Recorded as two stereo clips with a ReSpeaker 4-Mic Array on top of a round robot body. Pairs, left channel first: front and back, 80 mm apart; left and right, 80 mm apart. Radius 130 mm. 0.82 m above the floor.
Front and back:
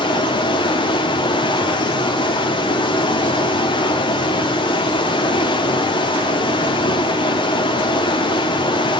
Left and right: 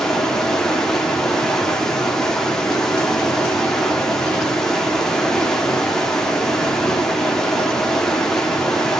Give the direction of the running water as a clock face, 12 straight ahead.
12 o'clock.